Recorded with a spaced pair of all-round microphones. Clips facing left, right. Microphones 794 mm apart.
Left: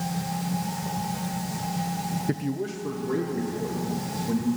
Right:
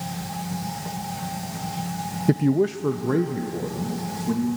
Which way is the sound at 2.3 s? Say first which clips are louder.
Right 10 dB; 70° right (ahead or behind).